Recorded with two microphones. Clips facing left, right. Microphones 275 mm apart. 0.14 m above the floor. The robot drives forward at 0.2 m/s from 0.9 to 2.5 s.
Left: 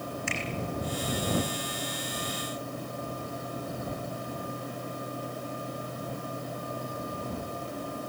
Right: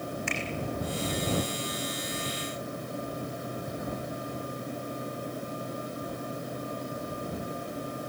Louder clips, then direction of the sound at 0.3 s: Right 1 dB; 65° right (ahead or behind).